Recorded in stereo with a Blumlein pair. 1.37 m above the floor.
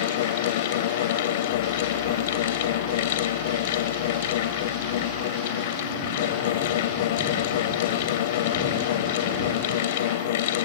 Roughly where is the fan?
Ahead left.